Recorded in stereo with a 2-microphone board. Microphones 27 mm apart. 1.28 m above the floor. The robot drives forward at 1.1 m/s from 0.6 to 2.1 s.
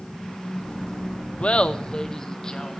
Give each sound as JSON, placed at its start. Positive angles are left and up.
{"t": 1.4, "sound": "laughter", "side_deg": 50, "distance_m": 0.6}